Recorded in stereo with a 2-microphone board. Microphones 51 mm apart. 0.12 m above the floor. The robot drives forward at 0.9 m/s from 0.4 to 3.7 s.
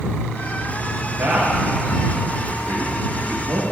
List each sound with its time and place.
1.2 s a man speaking: 75° right (ahead or behind), 6 m